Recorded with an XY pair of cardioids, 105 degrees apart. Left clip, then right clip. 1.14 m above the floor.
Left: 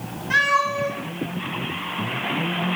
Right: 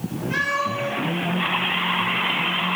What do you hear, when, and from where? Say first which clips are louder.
0.3 s a cat meowing: left 5 dB; 65° left, 3 m; by 2.8 s 35° left, 3 m